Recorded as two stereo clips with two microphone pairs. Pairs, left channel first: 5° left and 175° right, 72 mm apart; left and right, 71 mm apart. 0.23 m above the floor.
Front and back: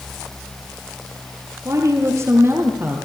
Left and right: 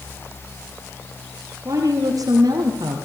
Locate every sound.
1.6 s a woman speaking: 130° right, 5.5 m; by 3.0 s 110° right, 5 m